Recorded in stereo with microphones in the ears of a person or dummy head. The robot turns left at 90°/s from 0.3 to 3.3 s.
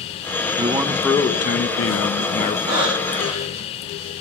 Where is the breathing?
155° right, 7 m; by 3.7 s 150° left, 7 m.